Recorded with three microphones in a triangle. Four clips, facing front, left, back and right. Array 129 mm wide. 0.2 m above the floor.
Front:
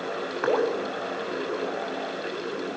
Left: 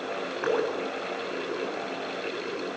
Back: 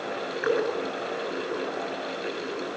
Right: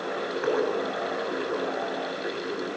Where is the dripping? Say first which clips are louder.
Right 1 dB, front 2 dB; 5° right, 8.5 m.